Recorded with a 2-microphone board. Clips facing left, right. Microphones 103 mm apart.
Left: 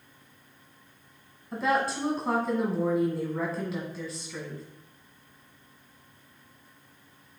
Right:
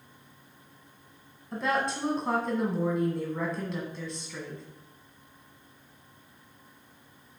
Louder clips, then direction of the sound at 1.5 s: Left 2 dB; centre (ahead or behind).